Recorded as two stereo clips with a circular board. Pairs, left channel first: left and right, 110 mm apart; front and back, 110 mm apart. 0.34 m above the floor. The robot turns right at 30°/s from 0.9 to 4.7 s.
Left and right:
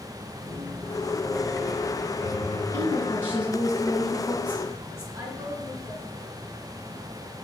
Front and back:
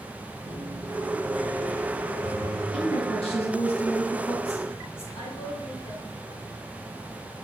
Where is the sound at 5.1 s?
35° right, 3 m.